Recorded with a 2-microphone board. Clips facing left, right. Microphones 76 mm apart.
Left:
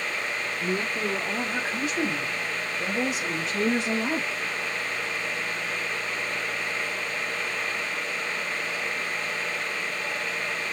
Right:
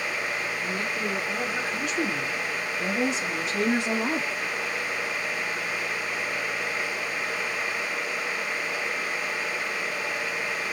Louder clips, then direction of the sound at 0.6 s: Left 1 dB; 45° left (ahead or behind).